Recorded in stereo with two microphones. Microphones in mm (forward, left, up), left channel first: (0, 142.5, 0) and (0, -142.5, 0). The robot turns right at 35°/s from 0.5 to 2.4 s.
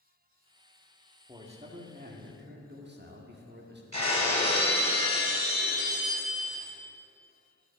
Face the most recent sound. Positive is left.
turn(degrees=-80)